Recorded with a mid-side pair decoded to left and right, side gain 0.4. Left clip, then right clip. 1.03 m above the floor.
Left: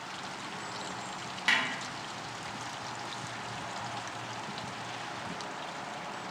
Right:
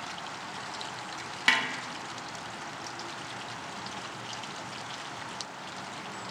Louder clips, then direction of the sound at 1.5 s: Right 3 dB; 50° right.